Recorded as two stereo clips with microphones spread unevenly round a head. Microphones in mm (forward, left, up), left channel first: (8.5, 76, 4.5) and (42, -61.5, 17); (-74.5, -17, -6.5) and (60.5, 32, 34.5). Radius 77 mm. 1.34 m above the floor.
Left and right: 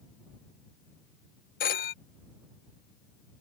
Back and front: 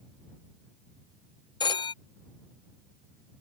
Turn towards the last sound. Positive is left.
turn(degrees=135)